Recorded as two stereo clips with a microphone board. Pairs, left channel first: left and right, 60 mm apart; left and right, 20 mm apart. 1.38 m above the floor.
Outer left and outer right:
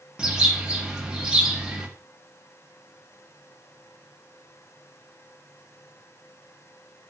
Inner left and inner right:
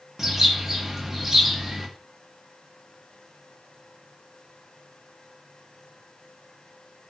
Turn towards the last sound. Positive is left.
turn(degrees=-15)  # may be behind; listen again after turning